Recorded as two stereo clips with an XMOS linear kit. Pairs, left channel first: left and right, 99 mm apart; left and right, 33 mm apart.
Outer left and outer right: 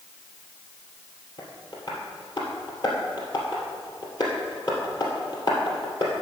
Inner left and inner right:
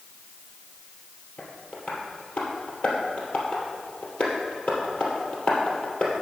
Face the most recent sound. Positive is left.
turn(degrees=45)  # may be behind; listen again after turning